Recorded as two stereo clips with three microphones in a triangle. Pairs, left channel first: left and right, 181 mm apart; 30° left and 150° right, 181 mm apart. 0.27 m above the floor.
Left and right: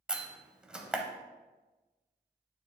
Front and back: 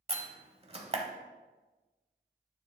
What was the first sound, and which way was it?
A door slam, 170° right.